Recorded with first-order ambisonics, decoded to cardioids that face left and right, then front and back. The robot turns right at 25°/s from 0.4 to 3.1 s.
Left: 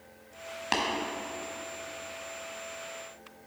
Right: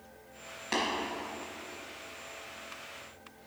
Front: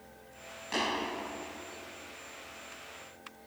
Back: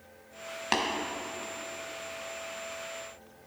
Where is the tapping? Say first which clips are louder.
Left 2 dB, back 4 dB; 150° left, 1.1 m.